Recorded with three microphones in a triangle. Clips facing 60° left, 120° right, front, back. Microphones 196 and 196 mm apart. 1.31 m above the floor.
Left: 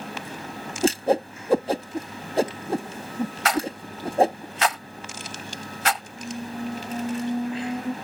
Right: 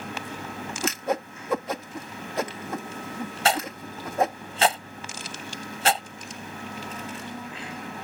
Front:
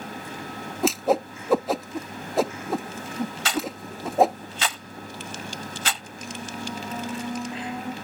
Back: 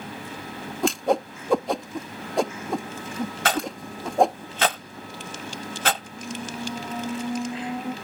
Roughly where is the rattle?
Behind.